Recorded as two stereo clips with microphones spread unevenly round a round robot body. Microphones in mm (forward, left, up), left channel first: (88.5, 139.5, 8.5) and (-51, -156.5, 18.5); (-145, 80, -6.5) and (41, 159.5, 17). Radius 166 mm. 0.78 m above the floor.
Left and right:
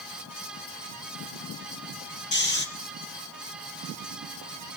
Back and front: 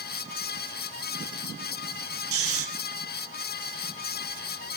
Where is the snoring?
5° left, 5.5 m.